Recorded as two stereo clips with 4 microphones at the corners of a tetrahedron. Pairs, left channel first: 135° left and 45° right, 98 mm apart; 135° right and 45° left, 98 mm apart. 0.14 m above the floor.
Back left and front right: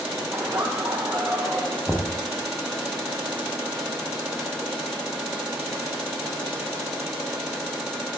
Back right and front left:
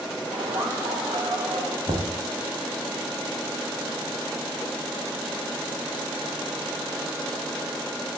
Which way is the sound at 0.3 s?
30° left.